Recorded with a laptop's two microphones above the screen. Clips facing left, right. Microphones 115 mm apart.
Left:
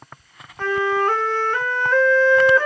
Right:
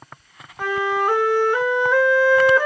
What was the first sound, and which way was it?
A flute, 10° right (ahead or behind).